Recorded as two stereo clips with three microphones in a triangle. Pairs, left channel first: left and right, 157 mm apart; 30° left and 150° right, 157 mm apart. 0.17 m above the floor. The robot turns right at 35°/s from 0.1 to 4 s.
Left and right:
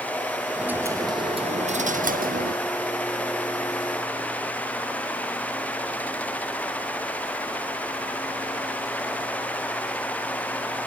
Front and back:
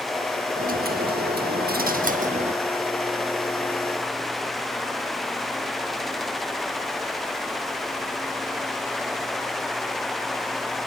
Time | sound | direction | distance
0.6 | a dropped coin | 175° right | 1.3 m